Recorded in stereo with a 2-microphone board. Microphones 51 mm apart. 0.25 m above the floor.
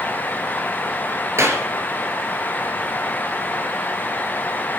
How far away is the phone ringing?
I don't hear a phone ringing.